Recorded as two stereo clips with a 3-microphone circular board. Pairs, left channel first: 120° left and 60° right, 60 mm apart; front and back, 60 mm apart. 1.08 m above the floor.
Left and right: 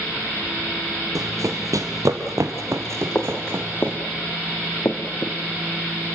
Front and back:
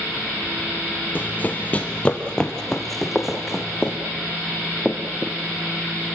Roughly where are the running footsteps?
Ahead right.